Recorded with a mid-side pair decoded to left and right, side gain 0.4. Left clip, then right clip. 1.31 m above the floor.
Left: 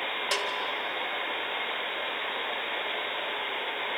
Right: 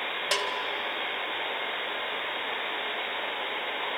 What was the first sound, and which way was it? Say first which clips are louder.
A bell: right 2 dB; 25° right.